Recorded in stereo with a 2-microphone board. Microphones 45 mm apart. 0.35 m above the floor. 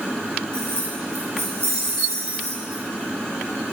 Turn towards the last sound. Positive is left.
turn(degrees=-45)  # may be behind; listen again after turning